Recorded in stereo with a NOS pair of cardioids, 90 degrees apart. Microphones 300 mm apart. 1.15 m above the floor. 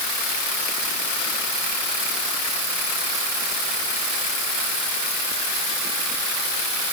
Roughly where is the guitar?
No guitar in this recording.